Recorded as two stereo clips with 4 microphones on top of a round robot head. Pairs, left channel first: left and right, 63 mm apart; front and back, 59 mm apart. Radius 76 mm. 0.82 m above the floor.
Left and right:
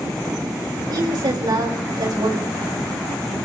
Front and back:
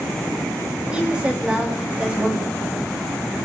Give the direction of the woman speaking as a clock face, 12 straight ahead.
3 o'clock.